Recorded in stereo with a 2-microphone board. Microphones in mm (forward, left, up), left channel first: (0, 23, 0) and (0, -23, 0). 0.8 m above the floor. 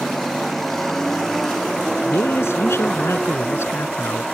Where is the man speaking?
70° left (ahead or behind).